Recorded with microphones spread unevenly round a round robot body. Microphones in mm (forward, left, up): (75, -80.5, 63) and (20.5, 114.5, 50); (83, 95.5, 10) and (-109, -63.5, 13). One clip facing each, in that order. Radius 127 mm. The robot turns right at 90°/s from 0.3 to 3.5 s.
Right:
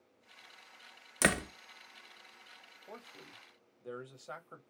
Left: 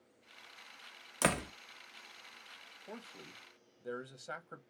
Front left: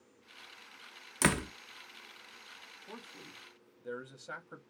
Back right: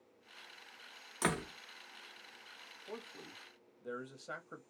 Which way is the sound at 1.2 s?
5° right.